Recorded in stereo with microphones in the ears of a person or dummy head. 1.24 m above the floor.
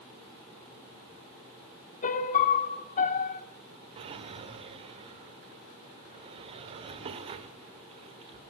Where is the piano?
45° left (ahead or behind), 1.9 m.